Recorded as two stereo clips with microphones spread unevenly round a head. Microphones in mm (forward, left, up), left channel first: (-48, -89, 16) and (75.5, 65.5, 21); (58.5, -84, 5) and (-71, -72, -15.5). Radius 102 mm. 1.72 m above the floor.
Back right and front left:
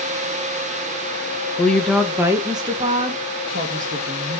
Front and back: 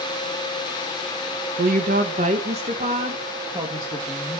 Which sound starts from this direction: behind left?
A woman speaking, at 1.6 s.